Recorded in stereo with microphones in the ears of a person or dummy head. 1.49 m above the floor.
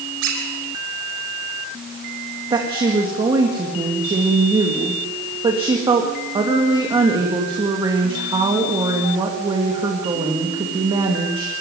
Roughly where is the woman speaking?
Right.